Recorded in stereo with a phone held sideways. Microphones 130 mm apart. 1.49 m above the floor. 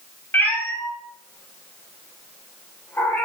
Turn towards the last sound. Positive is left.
turn(degrees=15)  # may be behind; listen again after turning